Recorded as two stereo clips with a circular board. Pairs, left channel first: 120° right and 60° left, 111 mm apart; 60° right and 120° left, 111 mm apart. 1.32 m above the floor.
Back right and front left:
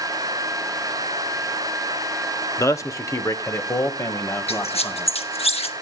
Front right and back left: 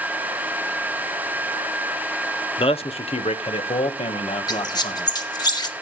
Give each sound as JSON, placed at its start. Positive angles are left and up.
{"t": 2.6, "sound": "a man speaking", "azimuth_deg": -65, "distance_m": 0.8}
{"t": 4.5, "sound": "a squeak", "azimuth_deg": -105, "distance_m": 1.0}